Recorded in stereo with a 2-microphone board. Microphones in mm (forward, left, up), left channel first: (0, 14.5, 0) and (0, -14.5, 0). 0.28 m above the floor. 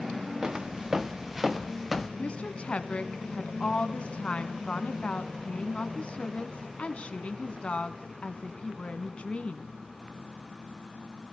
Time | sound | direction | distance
0.4 | footsteps | 25° right (ahead or behind) | 1.6 m
2.2 | a woman speaking | 45° left (ahead or behind) | 2 m